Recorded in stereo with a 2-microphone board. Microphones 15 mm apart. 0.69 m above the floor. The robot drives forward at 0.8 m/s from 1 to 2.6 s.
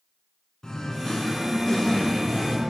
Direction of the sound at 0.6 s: 40° left (ahead or behind).